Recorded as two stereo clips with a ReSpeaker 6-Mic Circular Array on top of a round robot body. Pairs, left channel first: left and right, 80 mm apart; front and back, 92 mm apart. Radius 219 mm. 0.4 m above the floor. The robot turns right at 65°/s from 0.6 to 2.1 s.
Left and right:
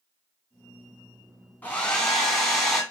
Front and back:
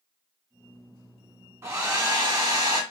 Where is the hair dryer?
140° left, 1.2 m; by 2.8 s 175° left, 1.2 m.